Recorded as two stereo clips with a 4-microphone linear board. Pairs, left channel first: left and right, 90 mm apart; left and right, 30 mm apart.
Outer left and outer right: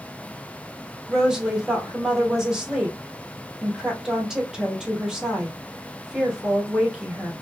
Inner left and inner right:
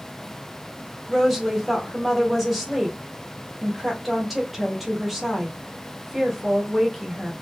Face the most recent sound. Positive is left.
turn(degrees=-5)  # may be behind; listen again after turning